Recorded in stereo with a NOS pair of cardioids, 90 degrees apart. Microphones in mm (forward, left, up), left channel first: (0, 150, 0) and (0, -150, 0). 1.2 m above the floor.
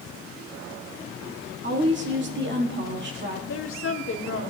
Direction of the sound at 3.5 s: 45° left.